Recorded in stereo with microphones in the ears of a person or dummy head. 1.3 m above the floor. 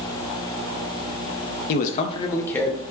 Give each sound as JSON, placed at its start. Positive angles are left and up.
{"t": 1.7, "sound": "a man speaking", "side_deg": 55, "distance_m": 0.5}